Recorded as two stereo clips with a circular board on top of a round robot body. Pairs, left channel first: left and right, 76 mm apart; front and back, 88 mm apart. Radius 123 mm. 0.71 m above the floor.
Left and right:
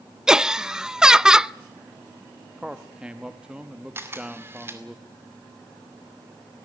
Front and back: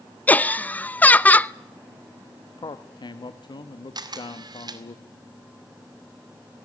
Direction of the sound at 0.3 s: 25° right.